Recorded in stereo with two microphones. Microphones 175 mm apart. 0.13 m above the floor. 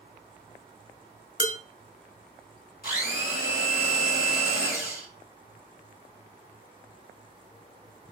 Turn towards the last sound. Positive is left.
turn(degrees=60)  # may be behind; listen again after turning